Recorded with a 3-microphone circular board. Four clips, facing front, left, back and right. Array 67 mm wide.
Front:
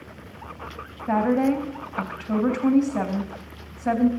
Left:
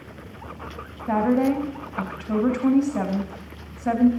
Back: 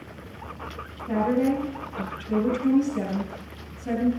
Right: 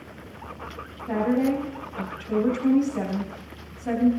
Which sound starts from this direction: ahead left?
A woman speaking, at 1.1 s.